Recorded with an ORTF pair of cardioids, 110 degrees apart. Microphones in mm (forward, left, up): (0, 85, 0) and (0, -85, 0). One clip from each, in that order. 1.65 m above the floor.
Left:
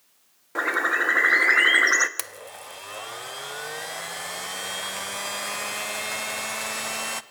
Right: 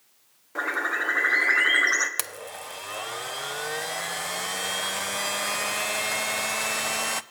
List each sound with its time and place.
0.6 s a bird: 30° left, 1.9 m
2.2 s a blender: 10° right, 0.8 m